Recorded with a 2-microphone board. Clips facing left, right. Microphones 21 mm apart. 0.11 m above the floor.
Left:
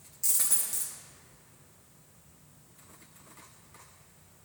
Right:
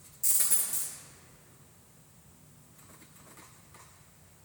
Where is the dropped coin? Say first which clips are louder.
Even; 35° left (ahead or behind), 3.5 m.